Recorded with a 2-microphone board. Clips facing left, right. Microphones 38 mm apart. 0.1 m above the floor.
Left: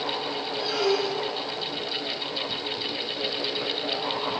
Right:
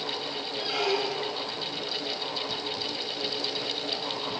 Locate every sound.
0.6 s a squeak: 20° right (ahead or behind), 2 m